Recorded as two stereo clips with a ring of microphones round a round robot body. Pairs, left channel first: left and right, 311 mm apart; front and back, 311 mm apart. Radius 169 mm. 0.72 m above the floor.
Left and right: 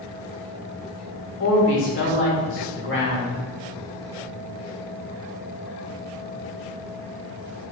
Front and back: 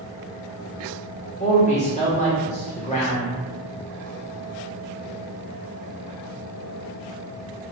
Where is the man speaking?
60° left, 1.1 m.